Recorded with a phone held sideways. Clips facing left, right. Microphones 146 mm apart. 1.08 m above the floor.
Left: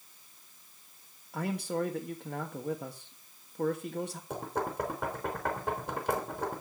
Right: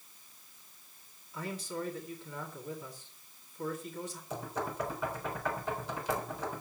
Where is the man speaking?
65° left (ahead or behind), 1.5 m.